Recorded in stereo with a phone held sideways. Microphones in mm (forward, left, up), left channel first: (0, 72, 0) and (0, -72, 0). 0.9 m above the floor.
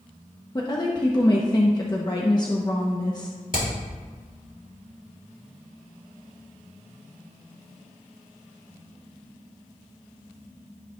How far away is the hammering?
About 3 m.